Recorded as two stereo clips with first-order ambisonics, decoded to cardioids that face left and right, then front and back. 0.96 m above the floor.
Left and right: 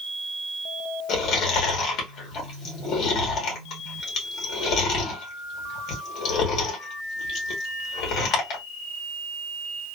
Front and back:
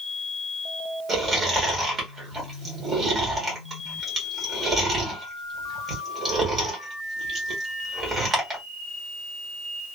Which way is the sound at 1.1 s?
125° left.